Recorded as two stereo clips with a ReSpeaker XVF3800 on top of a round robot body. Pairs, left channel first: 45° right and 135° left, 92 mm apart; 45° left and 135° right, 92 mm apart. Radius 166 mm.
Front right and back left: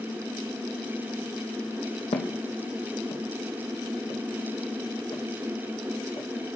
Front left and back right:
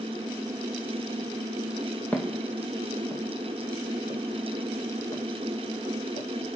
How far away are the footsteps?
About 1.3 m.